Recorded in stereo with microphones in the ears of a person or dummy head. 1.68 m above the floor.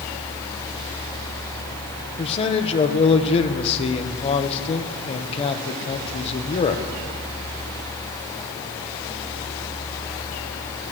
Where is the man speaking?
30° left (ahead or behind), 0.9 m.